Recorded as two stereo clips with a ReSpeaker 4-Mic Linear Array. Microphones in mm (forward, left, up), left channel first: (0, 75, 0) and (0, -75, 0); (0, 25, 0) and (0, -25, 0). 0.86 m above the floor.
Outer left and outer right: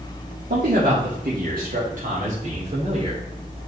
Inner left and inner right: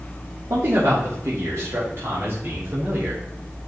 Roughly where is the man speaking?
Right.